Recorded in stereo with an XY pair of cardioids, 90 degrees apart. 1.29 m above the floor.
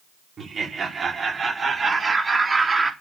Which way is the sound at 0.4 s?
55° right.